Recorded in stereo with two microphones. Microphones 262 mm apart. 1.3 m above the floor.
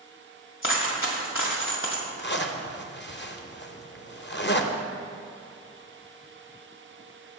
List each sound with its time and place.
0.6 s a dropped coin: 50° left (ahead or behind), 1.7 m
2.2 s a zipper: 45° left (ahead or behind), 0.7 m